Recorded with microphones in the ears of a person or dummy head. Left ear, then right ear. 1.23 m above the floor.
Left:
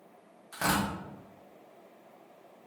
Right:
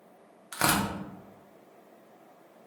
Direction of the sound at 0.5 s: 80° right.